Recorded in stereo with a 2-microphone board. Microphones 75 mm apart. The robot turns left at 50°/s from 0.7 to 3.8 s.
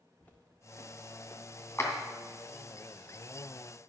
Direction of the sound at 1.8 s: 35° left (ahead or behind).